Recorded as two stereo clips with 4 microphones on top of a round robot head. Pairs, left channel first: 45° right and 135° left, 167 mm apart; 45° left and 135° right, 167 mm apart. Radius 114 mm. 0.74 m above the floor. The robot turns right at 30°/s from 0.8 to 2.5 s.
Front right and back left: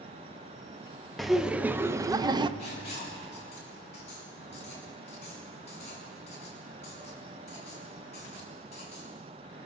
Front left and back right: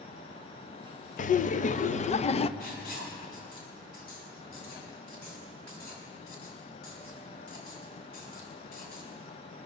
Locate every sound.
1.2 s laughter: 45° left, 0.7 m; by 2.5 s 85° left, 0.7 m
2.6 s writing: 10° left, 5.5 m